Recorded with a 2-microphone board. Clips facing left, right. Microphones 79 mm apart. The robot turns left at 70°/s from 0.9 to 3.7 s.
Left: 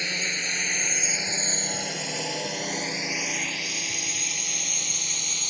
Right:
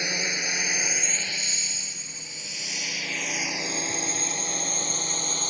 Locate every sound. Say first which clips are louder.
0.0 s a drone: right 1 dB; 15° right (ahead or behind); by 5.5 s 40° right (ahead or behind)